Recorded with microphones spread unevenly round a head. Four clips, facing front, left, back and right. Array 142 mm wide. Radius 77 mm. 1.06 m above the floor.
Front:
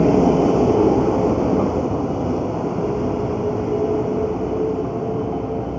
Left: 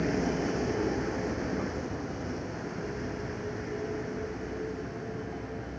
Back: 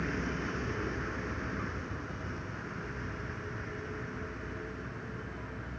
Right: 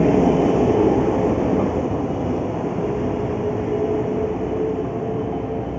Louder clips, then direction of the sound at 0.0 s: Right 14 dB, front 22 dB; 35° right.